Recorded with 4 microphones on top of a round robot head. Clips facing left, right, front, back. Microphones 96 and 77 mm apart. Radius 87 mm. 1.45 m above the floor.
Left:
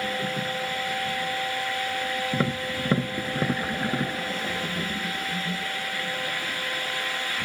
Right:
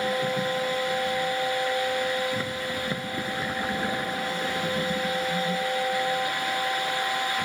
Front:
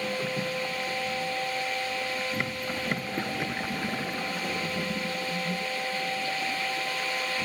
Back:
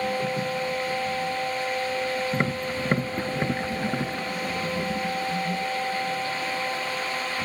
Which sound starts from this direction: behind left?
Tapping, at 2.3 s.